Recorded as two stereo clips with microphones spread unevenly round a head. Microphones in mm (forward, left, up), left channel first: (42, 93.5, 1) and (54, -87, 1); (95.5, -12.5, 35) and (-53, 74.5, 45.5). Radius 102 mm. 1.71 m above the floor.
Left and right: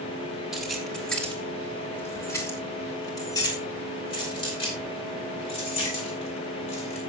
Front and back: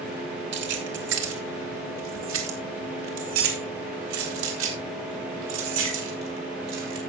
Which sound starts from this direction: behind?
Keys jangling, at 0.5 s.